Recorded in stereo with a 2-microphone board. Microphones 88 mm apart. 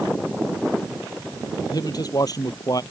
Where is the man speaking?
50° left (ahead or behind); by 2.8 s 45° left (ahead or behind).